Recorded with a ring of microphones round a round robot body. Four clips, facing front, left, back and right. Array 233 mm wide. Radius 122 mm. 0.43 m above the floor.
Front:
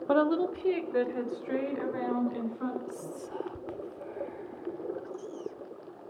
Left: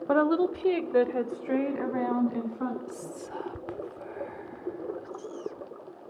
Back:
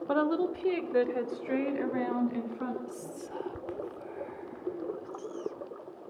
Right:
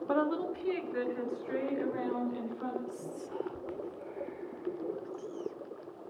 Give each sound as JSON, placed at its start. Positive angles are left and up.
{"t": 0.1, "sound": "a woman speaking", "azimuth_deg": 55, "distance_m": 1.0}
{"t": 2.9, "sound": "whispering", "azimuth_deg": 95, "distance_m": 0.9}